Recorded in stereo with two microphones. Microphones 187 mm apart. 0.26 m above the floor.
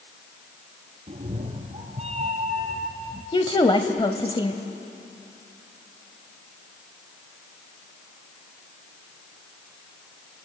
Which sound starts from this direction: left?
A woman speaking, at 3.3 s.